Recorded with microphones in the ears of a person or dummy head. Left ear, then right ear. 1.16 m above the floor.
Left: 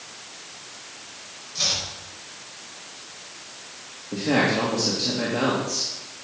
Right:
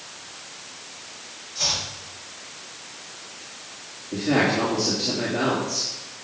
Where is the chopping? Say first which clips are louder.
Even; 70° left (ahead or behind), 5 m.